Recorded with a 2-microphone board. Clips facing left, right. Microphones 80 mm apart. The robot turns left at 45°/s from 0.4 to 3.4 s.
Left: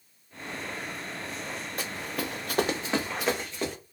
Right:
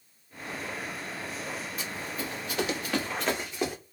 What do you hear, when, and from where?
1.8 s running footsteps: 60° left (ahead or behind), 0.7 m; by 3.8 s 10° right (ahead or behind), 1.3 m